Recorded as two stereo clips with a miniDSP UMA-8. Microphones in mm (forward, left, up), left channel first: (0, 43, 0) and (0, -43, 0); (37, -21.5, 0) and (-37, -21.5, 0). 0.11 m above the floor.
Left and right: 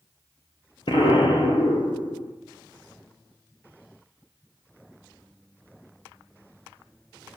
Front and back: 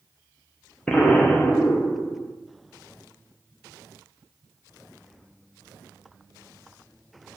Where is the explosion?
75° left, 1.6 m.